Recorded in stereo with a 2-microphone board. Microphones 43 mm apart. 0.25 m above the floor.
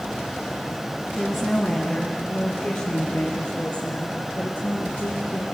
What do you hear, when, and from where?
1.1 s a woman speaking: 10° left (ahead or behind), 2.5 m; by 5.4 s 60° left (ahead or behind), 7.5 m